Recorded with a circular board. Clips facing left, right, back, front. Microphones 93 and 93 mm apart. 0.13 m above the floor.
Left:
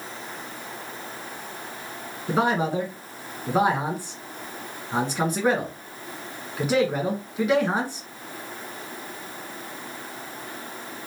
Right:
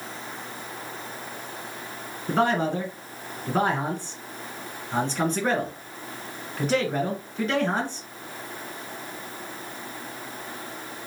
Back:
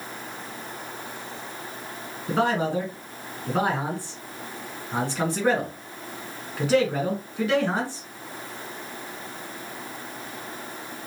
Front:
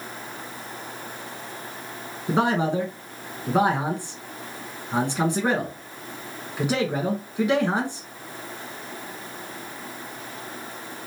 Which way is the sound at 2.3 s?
30° left.